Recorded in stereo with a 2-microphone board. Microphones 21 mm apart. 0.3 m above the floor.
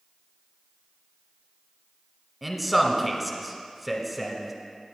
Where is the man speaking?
5° right (ahead or behind), 1.3 m.